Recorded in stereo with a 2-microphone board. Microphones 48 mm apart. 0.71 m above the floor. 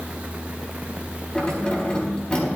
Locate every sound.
1.4 s keys jangling: 20° left (ahead or behind), 4 m